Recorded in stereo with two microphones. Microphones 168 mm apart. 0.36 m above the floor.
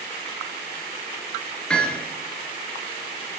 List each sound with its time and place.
1.7 s hammering: 5° left (ahead or behind), 4.5 m